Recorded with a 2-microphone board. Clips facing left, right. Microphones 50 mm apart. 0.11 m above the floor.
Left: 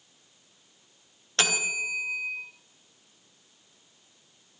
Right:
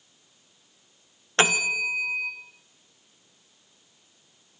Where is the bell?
30° right (ahead or behind), 3.5 m.